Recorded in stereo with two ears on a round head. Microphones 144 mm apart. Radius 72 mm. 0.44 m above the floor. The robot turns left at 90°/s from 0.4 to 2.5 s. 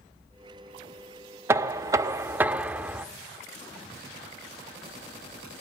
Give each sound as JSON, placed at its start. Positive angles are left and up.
{"t": 1.5, "sound": "knocking", "side_deg": -15, "distance_m": 0.6}